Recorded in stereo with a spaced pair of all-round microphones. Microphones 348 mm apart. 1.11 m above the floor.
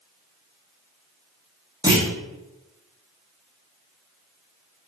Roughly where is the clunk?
Centre.